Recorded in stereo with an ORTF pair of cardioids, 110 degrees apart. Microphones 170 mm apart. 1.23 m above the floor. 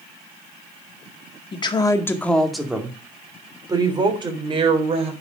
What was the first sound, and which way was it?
A woman speaking, 30° left.